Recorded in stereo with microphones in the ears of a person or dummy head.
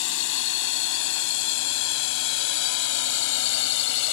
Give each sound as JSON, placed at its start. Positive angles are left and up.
{"t": 0.0, "sound": "a drone", "side_deg": 75}